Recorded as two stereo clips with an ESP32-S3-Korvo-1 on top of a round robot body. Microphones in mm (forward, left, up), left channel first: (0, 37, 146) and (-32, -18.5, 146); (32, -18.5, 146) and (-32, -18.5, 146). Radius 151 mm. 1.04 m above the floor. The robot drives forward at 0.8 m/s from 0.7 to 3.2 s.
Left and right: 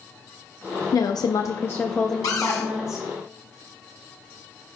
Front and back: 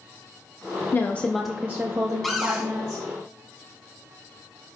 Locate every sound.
0.9 s a woman speaking: 50° left, 0.6 m; by 3.0 s 160° left, 1.4 m
2.2 s a cupboard door: 90° left, 0.8 m; by 2.7 s 115° left, 0.8 m